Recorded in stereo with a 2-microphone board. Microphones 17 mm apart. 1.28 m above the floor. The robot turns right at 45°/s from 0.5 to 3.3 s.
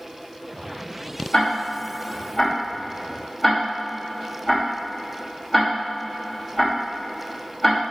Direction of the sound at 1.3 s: 65° left (ahead or behind).